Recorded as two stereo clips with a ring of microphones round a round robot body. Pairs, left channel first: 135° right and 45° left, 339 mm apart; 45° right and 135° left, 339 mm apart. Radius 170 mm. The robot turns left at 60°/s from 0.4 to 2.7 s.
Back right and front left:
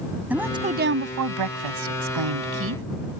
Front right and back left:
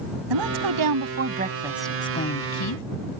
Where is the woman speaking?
130° left; by 2.8 s 10° right.